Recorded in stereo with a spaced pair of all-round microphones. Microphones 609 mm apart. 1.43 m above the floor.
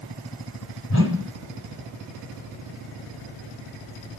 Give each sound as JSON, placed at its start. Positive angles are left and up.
{"t": 0.9, "sound": "a whoosh", "side_deg": 20, "distance_m": 1.5}